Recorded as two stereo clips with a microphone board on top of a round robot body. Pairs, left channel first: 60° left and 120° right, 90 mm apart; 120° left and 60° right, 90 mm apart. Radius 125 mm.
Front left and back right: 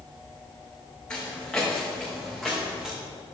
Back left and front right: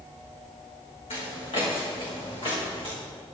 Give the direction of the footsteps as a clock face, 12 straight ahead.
7 o'clock.